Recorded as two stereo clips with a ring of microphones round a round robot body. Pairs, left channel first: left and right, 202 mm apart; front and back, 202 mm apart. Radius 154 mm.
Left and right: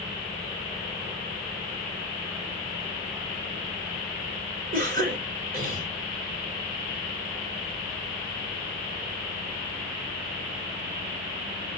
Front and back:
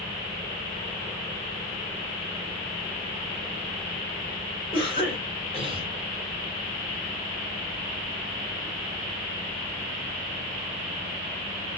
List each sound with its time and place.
4.7 s a cough: 60° right, 2 m